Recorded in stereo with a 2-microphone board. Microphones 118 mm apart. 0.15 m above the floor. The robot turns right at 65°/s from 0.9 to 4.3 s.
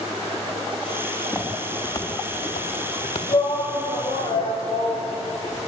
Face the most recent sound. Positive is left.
turn(degrees=130)